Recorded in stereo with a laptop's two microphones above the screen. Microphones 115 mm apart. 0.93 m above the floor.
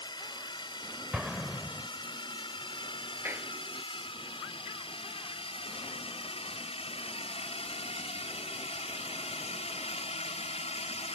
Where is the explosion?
5° right (ahead or behind).